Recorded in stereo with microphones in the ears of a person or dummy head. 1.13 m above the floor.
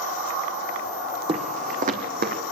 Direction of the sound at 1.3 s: 35° right (ahead or behind).